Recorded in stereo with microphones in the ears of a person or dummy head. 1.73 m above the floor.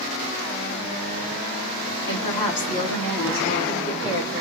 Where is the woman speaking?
45° left (ahead or behind), 1.6 m; by 4.4 s 15° left (ahead or behind), 2.5 m.